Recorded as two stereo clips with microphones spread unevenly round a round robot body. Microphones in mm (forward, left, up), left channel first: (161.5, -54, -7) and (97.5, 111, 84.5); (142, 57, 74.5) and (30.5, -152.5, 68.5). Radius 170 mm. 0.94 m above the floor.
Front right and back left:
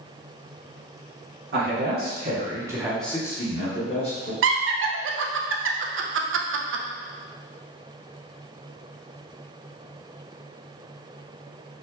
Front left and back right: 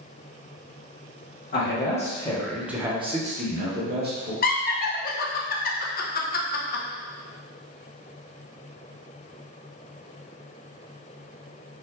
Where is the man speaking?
90° left, 1.2 m; by 4.3 s 80° right, 1.8 m.